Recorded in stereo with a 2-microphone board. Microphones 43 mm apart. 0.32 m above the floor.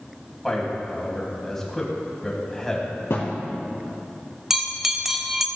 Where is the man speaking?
10° left (ahead or behind), 2.5 m.